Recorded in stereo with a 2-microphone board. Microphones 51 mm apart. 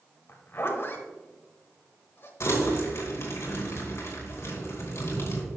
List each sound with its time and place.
0.3 s a zipper: 50° left (ahead or behind), 1.4 m
2.4 s crumpling: 60° left (ahead or behind), 2.5 m